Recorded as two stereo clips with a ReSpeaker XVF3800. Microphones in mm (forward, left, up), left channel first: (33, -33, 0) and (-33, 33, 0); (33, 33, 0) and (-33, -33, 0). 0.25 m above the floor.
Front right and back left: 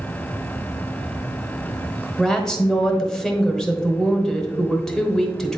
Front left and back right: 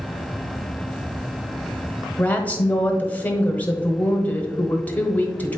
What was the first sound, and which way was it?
A woman speaking, 25° left.